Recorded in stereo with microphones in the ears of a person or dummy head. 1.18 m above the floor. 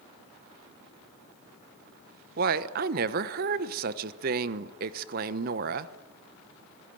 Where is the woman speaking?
45° right (ahead or behind), 1.0 m.